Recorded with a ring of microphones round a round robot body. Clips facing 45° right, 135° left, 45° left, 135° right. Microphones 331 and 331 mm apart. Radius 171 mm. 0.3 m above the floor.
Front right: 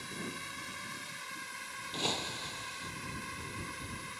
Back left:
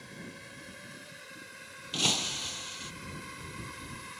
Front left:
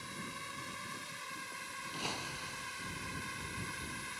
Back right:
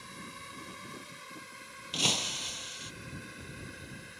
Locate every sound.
0.0 s a drone: 45° right; by 4.2 s 50° left
1.9 s breaking glass: 170° right